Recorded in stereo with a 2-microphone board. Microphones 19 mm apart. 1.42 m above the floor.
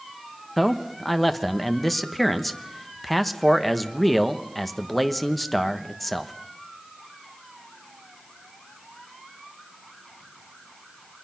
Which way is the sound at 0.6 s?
5° left (ahead or behind).